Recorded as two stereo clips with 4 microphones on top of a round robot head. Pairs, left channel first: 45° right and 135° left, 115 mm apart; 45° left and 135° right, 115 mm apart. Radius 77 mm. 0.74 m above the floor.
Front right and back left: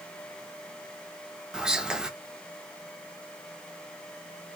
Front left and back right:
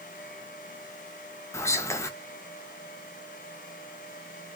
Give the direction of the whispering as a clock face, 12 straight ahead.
10 o'clock.